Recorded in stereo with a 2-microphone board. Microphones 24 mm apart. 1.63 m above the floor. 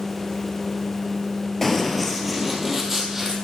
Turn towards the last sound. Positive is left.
turn(degrees=-20)  # may be behind; listen again after turning